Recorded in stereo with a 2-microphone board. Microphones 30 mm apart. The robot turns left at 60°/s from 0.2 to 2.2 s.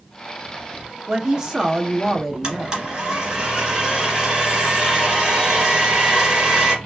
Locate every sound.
1.1 s a woman speaking: 20° right (ahead or behind), 0.7 m; by 2.9 s 10° right (ahead or behind), 0.7 m
2.4 s a blender: 25° right (ahead or behind), 1.6 m